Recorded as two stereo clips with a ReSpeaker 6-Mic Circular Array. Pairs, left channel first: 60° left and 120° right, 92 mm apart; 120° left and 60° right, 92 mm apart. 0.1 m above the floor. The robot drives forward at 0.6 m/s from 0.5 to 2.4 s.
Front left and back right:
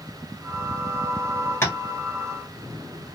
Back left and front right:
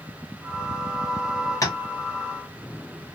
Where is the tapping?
105° left, 1.5 m; by 1.8 s 110° left, 1.5 m.